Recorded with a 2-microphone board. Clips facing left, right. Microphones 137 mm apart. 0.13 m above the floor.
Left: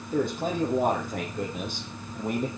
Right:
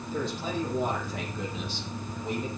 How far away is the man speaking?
About 6.5 m.